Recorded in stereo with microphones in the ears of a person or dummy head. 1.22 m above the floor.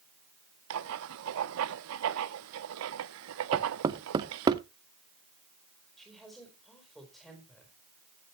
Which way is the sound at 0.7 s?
70° right (ahead or behind).